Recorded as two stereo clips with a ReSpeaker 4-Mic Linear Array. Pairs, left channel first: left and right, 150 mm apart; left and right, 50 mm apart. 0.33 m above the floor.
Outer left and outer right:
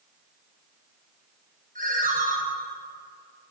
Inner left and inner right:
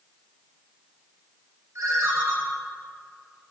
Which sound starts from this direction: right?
A ringtone, at 1.8 s.